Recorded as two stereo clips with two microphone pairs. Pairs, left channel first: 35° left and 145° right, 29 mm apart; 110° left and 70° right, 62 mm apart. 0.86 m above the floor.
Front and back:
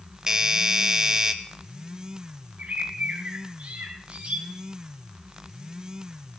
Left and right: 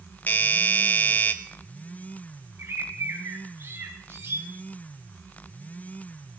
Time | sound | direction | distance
0.3 | a doorbell | 155° left | 1.3 m
2.6 | a bird | 115° right | 4 m